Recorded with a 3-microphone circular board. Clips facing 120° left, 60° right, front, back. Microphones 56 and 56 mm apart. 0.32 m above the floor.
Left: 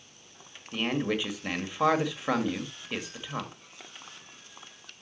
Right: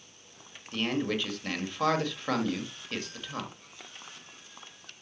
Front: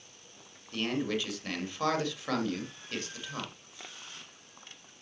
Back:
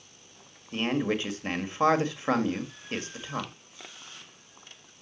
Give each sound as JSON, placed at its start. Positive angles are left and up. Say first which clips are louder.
{"t": 0.7, "sound": "a man speaking", "louder": "left 1 dB, back 4 dB", "azimuth_deg": -175, "distance_m": 1.5}